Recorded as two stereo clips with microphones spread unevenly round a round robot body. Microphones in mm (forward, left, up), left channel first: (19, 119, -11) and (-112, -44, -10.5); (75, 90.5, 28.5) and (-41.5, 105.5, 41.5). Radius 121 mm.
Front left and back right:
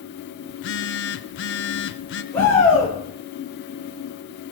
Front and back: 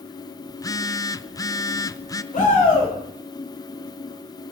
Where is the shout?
30° right, 6.5 m.